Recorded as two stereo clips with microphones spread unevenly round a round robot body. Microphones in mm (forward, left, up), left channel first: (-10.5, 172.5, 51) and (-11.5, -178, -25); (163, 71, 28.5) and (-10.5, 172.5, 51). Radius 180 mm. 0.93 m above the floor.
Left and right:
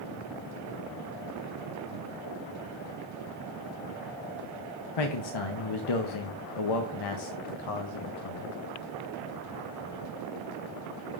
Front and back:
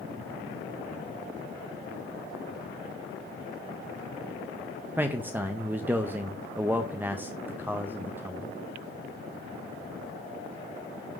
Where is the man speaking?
65° left, 0.7 m.